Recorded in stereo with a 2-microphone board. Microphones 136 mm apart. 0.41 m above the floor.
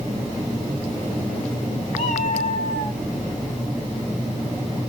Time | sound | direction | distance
1.9 | a cat meowing | 50° left (ahead or behind) | 4 m